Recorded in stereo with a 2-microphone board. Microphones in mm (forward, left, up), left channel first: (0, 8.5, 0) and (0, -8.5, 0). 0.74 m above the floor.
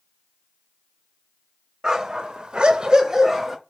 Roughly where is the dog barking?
Right.